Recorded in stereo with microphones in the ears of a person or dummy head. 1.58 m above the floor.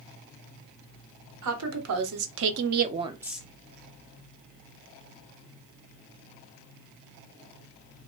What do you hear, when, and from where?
1.4 s a woman speaking: 85° right, 1.1 m; by 3.5 s 10° left (ahead or behind), 0.5 m